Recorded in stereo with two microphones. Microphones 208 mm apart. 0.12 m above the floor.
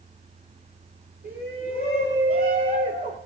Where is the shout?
50° right (ahead or behind), 6 m; by 3.2 s 40° right (ahead or behind), 6 m.